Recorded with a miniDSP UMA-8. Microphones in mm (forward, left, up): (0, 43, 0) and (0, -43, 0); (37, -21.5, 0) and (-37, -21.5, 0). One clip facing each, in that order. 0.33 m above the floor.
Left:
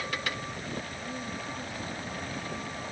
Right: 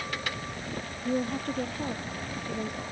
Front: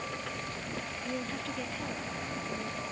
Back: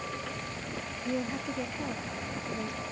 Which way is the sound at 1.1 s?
105° right.